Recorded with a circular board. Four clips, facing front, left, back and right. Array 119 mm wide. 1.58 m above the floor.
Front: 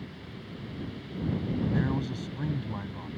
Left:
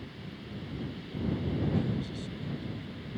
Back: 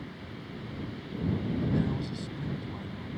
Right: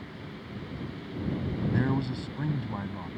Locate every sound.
1.6 s a man speaking: 70° right